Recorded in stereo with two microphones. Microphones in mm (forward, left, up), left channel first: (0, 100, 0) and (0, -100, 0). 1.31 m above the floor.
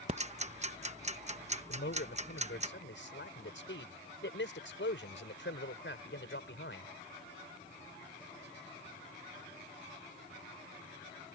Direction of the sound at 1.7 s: 70° left (ahead or behind).